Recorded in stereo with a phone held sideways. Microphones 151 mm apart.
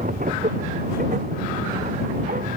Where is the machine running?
70° right (ahead or behind).